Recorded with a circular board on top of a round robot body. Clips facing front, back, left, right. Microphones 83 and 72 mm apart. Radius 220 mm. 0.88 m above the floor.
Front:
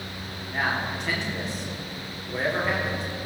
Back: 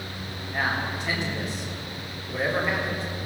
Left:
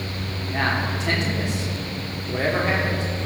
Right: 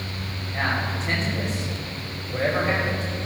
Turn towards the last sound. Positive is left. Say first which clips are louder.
# even, left 2 dB
turn(degrees=90)